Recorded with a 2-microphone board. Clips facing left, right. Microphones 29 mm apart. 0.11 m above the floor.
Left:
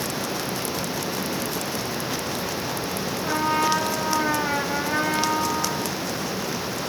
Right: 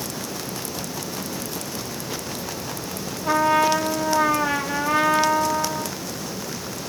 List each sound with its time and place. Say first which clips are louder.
3.2 s a trumpet: right 4 dB; 60° right (ahead or behind), 2.5 m